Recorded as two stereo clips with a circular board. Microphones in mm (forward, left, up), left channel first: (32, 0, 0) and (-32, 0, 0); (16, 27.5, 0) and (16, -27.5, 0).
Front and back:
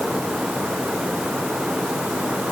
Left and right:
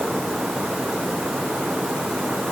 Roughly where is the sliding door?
I don't hear a sliding door.